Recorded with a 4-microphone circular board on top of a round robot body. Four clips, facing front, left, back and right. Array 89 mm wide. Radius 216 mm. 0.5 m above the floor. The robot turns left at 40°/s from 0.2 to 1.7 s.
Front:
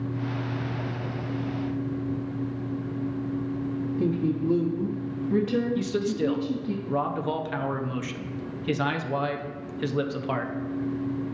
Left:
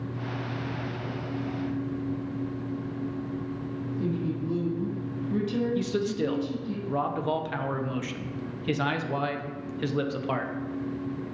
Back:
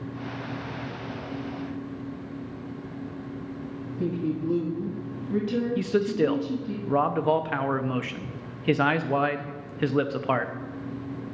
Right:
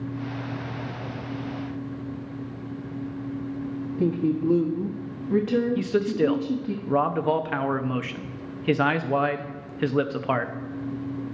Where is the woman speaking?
85° right, 1.5 m.